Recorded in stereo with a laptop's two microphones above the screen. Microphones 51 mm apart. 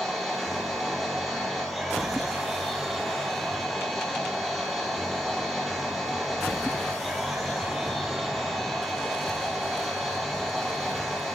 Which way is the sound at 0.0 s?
5° left (ahead or behind).